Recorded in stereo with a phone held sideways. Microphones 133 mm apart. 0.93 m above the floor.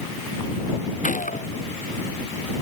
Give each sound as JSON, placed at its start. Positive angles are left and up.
{"t": 1.0, "sound": "a gunshot", "side_deg": 80}